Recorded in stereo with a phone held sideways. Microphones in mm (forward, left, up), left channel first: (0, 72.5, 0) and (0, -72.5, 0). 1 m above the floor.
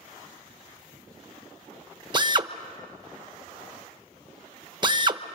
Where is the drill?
30° right (ahead or behind), 1.0 m.